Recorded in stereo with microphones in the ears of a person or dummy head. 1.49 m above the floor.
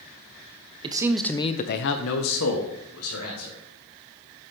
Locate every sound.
0.8 s a man speaking: 25° right (ahead or behind), 0.7 m; by 3.6 s 85° left, 2 m